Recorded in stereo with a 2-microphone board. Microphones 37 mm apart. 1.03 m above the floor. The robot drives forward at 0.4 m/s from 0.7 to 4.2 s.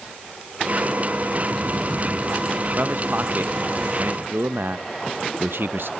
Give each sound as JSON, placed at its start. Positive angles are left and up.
{"t": 2.8, "sound": "a man speaking", "side_deg": -55, "distance_m": 0.7}